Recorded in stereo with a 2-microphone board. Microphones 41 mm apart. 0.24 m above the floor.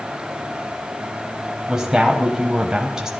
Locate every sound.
1.7 s a woman speaking: 15° right (ahead or behind), 1.0 m